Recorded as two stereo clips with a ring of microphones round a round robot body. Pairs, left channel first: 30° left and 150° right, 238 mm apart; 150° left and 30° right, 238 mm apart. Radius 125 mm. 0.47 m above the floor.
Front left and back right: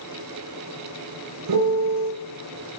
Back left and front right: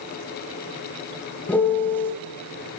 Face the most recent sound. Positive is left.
turn(degrees=-125)